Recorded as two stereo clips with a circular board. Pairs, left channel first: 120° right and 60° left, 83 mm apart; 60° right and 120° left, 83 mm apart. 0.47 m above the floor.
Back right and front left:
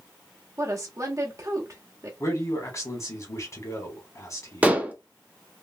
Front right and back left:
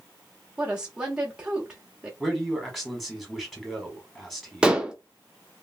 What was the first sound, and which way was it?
A woman speaking, 45° left.